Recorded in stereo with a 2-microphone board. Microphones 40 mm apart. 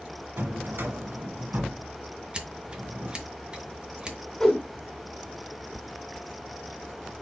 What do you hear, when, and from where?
0.4 s a drawer: 65° right (ahead or behind), 1.2 m
2.3 s scissors: 25° right (ahead or behind), 0.9 m
4.4 s a whoosh: 15° left (ahead or behind), 1.4 m